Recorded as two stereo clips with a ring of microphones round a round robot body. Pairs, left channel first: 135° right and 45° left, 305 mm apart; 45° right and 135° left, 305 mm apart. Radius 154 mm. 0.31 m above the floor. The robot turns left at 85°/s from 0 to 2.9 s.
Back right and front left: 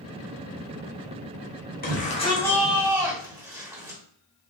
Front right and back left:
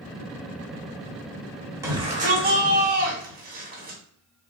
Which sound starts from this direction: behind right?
A shout, at 1.8 s.